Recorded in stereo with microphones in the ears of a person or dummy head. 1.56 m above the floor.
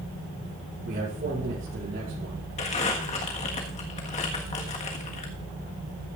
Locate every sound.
0.8 s a man speaking: 45° right (ahead or behind), 7 m
2.6 s crumpling: 35° left (ahead or behind), 1.6 m